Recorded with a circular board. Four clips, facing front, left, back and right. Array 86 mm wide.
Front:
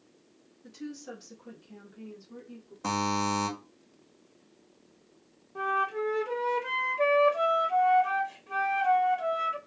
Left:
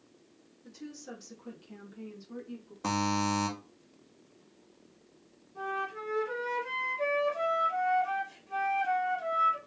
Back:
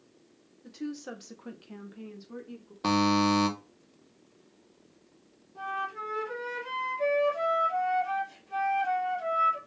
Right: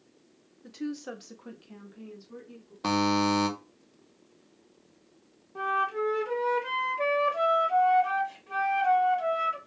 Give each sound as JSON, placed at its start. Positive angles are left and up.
{"t": 0.6, "sound": "a woman speaking", "azimuth_deg": -100, "distance_m": 0.9}
{"t": 2.8, "sound": "a buzzer", "azimuth_deg": -145, "distance_m": 0.8}
{"t": 5.5, "sound": "a flute", "azimuth_deg": -50, "distance_m": 1.2}